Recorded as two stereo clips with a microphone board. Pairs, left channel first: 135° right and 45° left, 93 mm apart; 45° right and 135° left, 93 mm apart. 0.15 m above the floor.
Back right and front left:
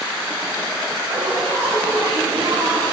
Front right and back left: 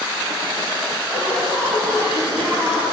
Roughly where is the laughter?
Left.